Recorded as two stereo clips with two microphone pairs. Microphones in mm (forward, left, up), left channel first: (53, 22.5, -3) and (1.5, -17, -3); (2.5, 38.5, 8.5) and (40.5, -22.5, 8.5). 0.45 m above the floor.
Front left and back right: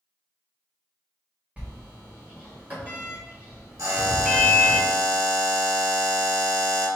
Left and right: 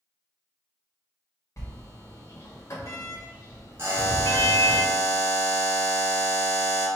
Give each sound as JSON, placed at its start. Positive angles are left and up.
{"t": 1.6, "sound": "a sliding door", "azimuth_deg": 155, "distance_m": 1.4}
{"t": 3.8, "sound": "a buzzer", "azimuth_deg": -110, "distance_m": 1.8}